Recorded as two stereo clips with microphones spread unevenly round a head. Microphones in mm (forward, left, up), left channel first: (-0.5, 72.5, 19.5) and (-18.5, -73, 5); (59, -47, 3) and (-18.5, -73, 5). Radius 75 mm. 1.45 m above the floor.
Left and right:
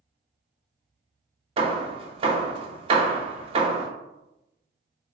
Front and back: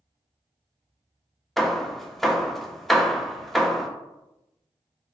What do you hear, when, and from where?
1.6 s hammering: 70° right, 0.5 m